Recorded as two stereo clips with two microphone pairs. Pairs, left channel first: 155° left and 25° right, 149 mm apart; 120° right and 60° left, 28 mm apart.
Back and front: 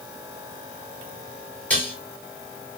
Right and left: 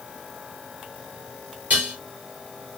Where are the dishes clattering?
70° left, 3.5 m.